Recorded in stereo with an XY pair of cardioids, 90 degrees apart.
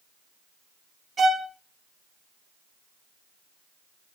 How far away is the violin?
About 0.8 m.